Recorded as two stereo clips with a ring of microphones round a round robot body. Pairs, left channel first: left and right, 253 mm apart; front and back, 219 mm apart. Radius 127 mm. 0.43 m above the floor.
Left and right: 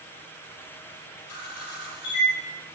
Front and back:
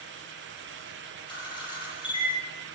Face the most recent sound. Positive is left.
turn(degrees=70)